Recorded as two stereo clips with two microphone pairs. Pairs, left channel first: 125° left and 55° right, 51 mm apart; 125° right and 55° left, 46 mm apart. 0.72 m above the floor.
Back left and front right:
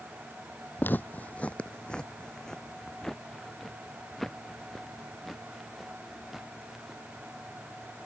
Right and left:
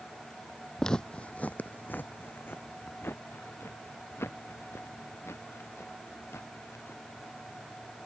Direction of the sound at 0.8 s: 160° left.